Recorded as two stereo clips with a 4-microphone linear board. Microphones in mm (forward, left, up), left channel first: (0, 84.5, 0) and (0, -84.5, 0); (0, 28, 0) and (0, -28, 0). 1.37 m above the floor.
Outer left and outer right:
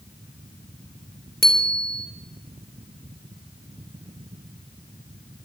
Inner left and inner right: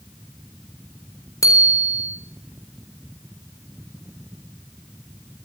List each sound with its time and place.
1.4 s a bicycle bell: 65° left (ahead or behind), 3.5 m